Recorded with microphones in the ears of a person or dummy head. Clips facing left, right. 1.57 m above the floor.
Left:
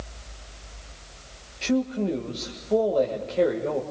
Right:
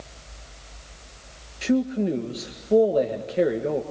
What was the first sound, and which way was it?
A man speaking, 15° right (ahead or behind).